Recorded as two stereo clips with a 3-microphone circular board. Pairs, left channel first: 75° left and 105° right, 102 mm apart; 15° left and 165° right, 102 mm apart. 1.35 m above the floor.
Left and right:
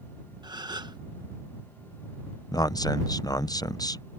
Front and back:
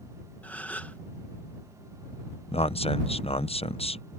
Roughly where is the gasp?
Ahead right.